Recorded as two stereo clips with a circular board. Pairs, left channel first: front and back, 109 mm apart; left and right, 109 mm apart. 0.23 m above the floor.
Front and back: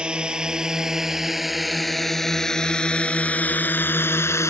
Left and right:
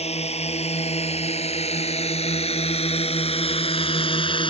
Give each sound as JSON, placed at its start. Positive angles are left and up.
{"t": 0.0, "sound": "a drone", "azimuth_deg": 100}